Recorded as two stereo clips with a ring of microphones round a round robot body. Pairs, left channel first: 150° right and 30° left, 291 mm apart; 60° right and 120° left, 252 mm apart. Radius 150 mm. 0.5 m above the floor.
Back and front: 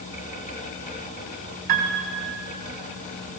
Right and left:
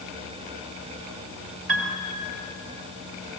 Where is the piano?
90° left, 3 m.